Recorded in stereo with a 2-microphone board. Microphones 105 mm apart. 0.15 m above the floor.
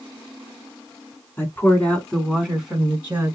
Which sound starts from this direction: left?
A woman speaking, at 1.4 s.